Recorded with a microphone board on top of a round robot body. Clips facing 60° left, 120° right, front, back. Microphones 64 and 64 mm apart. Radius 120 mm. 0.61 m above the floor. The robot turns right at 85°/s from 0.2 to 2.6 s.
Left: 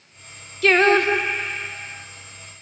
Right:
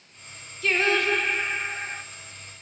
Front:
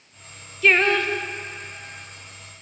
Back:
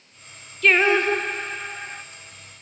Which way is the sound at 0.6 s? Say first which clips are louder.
Left 7 dB, back 1 dB; 80° left.